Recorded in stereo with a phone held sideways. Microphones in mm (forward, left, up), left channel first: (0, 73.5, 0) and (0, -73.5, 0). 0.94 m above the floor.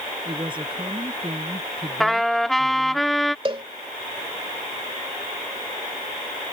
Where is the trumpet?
Centre (ahead or behind).